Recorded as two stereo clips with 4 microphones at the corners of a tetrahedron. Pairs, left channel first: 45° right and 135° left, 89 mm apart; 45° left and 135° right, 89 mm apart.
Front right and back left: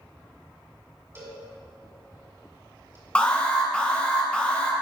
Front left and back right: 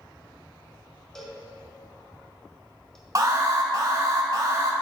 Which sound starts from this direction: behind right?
An alarm, at 3.1 s.